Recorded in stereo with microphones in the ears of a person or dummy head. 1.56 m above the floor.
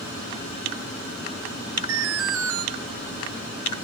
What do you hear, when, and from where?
1.9 s an alarm: 70° right (ahead or behind), 1.8 m